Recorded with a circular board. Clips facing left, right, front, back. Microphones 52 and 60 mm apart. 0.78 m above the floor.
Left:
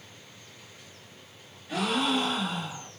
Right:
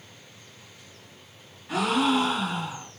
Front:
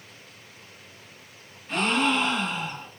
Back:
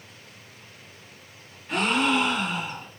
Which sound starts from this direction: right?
A gasp, at 1.7 s.